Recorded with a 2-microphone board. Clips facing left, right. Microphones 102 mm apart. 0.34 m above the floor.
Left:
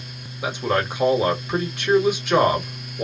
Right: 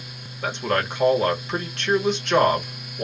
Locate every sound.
0.4 s a man speaking: 10° left (ahead or behind), 1.1 m